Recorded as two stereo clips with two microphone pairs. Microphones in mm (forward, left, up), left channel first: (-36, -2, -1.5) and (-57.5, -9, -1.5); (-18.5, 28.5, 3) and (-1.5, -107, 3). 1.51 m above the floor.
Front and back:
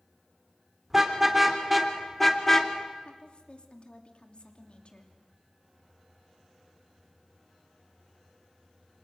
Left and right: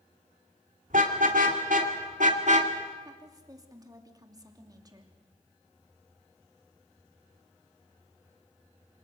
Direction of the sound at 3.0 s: 20° right.